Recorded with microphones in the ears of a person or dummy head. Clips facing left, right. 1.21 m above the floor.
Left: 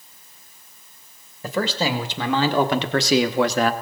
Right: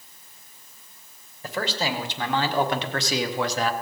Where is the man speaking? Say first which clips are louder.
Left 5 dB; 75° left (ahead or behind), 2 m; by 3.7 s 50° left (ahead or behind), 1.0 m.